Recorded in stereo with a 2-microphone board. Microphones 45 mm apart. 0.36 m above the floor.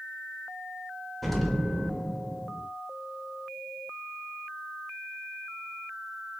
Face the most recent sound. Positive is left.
turn(degrees=5)  # may be behind; listen again after turning